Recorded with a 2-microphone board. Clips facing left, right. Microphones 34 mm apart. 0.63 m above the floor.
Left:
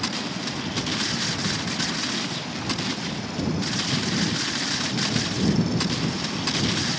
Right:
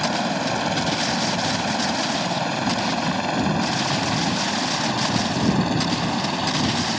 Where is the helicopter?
70° right (ahead or behind); by 7.0 s 55° right (ahead or behind).